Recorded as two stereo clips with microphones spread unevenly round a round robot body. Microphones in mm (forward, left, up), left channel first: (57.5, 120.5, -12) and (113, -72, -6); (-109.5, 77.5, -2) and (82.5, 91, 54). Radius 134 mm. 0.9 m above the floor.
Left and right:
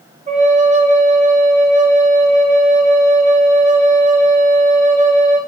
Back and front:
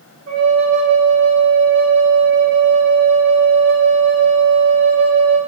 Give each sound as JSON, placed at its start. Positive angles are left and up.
{"t": 0.3, "sound": "a flute", "azimuth_deg": -20, "distance_m": 0.5}